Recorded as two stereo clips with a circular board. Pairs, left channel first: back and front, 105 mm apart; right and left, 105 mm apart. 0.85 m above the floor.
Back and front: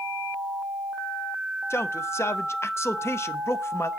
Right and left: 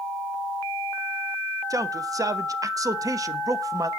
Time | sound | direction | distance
1.7 | a man speaking | 125° left | 0.8 m